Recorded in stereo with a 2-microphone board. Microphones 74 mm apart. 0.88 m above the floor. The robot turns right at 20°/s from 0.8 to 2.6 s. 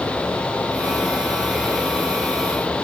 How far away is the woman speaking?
I don't hear a woman speaking.